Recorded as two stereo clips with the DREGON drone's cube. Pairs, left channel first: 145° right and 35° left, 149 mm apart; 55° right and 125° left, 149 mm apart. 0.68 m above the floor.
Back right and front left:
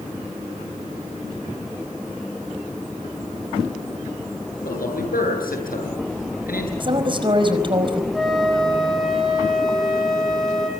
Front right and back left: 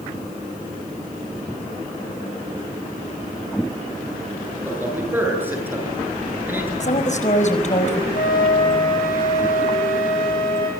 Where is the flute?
55° right, 6 m.